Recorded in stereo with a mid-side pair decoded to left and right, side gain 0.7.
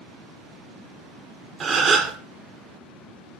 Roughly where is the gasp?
Ahead right.